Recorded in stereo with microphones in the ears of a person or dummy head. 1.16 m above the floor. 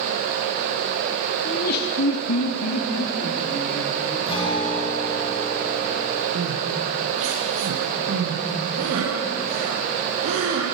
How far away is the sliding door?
No sliding door in this recording.